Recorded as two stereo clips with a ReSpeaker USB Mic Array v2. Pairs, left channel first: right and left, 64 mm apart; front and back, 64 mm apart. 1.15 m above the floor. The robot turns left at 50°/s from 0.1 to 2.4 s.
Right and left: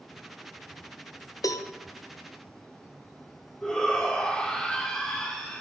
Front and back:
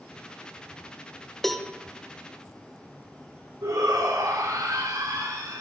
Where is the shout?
165° right, 4 m.